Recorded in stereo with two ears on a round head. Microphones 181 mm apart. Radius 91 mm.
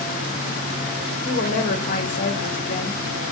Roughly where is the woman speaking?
Left.